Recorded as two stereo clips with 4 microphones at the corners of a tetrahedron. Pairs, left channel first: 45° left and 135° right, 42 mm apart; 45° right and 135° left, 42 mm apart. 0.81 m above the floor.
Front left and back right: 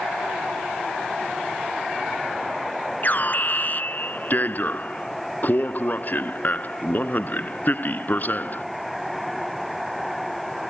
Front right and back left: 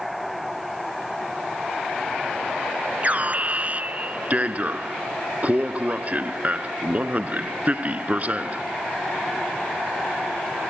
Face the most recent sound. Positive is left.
turn(degrees=85)